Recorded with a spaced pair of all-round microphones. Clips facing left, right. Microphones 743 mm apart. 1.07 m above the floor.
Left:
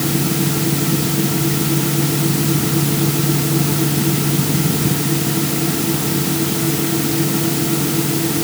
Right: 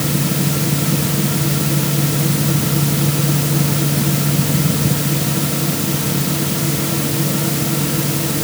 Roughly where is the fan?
Centre.